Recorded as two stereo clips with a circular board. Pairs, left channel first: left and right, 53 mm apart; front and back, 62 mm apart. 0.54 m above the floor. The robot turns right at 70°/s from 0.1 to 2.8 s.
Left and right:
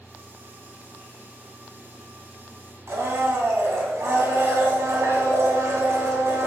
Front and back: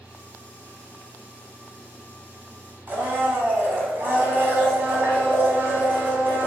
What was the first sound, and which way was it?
A blender, 120° right.